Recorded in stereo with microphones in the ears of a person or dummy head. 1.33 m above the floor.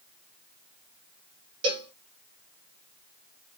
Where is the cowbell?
25° right (ahead or behind), 1.0 m.